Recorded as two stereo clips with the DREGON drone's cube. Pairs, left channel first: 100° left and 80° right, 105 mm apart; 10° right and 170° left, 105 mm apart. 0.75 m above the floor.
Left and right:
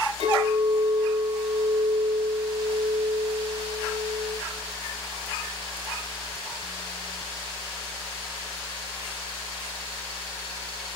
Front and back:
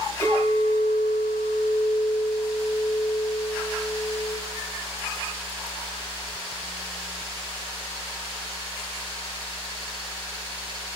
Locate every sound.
0.2 s a clink: 75° right, 2.5 m